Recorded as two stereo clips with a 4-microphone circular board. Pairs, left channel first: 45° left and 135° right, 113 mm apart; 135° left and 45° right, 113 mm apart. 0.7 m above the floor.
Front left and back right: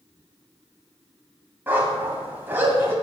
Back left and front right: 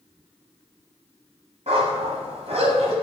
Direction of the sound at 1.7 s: 65° right.